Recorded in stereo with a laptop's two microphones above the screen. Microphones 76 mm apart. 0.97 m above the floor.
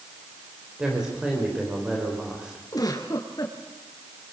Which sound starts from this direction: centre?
A woman speaking, at 0.8 s.